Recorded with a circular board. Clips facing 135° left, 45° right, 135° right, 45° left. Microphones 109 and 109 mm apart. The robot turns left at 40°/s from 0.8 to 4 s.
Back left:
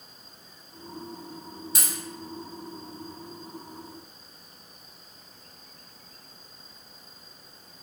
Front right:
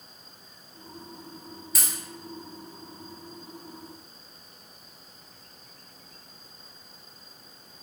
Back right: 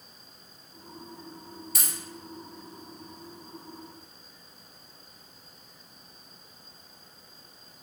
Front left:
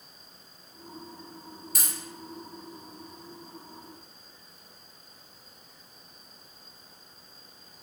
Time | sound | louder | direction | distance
1.8 | a dropped coin | even, front left 1 dB | 75° left | 1.2 m